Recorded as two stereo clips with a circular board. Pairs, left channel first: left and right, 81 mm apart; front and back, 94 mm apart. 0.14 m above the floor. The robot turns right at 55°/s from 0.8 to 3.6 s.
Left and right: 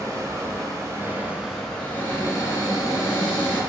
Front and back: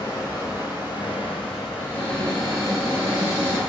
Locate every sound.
0.0 s running water: 45° right, 1.1 m; by 3.7 s 110° left, 1.1 m
1.8 s a cupboard door: 35° left, 1.4 m; by 3.6 s 135° left, 1.4 m